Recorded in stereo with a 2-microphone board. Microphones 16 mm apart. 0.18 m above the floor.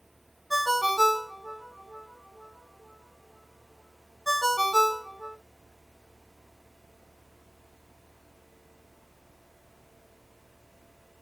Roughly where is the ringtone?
Centre.